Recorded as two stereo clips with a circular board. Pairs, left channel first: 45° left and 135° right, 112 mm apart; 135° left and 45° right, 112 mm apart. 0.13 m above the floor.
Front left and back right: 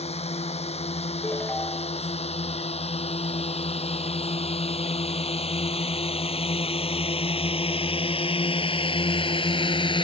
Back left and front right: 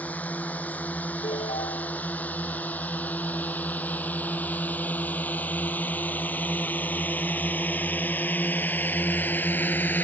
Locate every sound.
0.0 s a drone: 60° left; by 10.1 s 65° left
1.2 s a ringtone: 120° left